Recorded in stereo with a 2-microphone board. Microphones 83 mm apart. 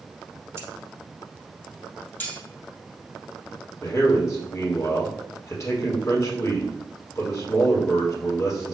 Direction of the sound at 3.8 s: 35° left (ahead or behind).